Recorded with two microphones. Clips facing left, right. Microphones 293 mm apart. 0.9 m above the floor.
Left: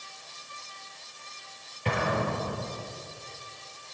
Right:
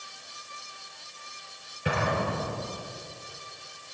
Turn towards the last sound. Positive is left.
turn(degrees=-10)  # may be behind; listen again after turning